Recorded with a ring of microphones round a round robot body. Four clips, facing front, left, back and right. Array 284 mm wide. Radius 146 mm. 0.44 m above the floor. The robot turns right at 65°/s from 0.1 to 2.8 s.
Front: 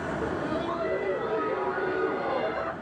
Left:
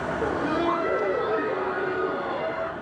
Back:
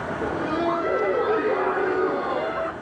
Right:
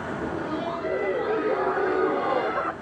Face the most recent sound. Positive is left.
turn(degrees=-90)